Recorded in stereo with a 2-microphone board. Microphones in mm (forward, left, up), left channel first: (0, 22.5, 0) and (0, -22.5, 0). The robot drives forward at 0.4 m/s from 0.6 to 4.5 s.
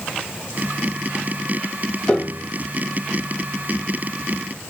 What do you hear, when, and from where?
2.1 s a piano: 25° left (ahead or behind), 1.5 m; by 2.5 s 30° left (ahead or behind), 1.4 m